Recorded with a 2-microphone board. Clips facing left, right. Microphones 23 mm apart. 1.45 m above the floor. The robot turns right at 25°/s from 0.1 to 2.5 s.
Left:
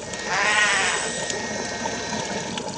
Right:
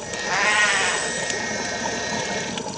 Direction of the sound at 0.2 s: Centre (ahead or behind).